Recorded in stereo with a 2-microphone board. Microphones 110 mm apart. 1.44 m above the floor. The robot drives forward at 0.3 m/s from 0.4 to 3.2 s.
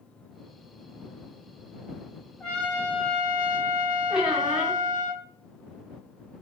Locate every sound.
2.4 s a trumpet: 10° left (ahead or behind), 1.0 m
4.1 s a squeak: 5° right (ahead or behind), 0.8 m